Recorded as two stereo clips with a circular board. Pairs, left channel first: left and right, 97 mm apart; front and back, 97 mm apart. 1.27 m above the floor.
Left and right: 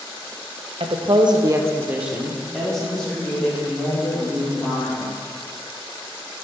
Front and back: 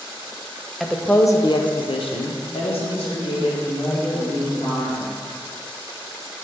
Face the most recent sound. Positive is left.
turn(degrees=15)